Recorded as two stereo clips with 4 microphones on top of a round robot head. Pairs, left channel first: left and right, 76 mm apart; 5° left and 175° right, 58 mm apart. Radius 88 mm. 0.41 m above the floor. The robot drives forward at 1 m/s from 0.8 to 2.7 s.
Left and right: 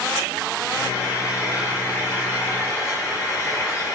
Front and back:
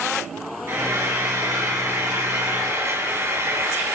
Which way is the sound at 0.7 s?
140° left.